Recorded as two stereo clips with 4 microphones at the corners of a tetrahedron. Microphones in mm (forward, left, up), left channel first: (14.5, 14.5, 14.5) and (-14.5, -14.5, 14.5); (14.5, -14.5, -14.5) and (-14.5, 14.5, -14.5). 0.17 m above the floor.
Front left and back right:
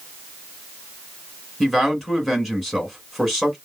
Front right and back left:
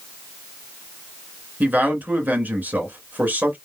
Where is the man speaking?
125° left, 2 m.